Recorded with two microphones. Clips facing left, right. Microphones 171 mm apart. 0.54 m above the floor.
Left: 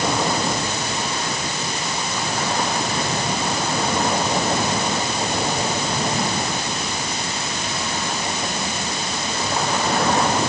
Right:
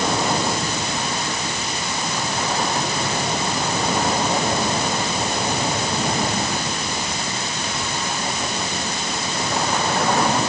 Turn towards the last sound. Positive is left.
No sound to turn to.